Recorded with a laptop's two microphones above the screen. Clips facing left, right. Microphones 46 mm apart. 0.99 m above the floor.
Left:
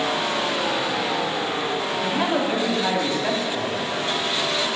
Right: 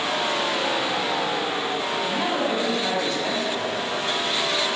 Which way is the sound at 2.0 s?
30° left (ahead or behind).